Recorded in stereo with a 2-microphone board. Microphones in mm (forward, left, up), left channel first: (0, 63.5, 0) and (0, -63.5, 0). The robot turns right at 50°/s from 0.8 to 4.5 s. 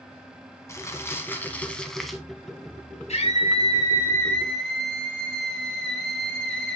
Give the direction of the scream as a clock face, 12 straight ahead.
9 o'clock.